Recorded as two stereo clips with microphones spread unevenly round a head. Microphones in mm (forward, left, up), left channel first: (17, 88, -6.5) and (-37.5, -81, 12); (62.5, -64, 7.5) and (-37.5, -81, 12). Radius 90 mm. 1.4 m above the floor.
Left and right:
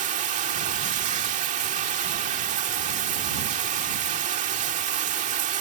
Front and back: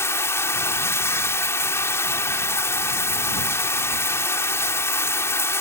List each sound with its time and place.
0.0 s running water: 55° right